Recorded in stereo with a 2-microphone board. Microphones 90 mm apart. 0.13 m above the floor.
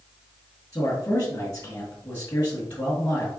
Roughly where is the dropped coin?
I don't hear a dropped coin.